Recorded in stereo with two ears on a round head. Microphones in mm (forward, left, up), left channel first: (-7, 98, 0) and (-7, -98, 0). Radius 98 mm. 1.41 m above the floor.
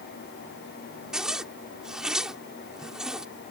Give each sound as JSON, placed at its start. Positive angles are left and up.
{"t": 1.1, "sound": "a zipper", "side_deg": -5}